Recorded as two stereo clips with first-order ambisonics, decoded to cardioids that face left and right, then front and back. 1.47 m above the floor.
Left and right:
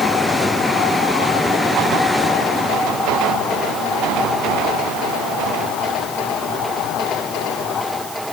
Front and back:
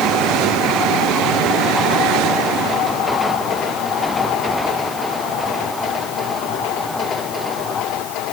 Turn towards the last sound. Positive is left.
No sound to turn to.